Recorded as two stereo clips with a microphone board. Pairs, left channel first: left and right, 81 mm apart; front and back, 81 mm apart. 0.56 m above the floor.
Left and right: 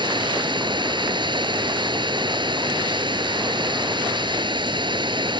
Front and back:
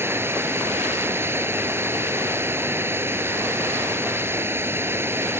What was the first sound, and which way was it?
Running water, 115° right.